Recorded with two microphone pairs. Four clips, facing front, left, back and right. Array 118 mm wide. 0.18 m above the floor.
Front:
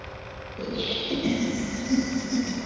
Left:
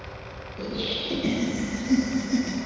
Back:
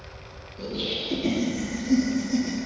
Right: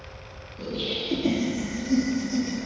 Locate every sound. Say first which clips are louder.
0.6 s laughter: even, front 1 dB; 65° left, 3 m; by 2.6 s 100° left, 2.5 m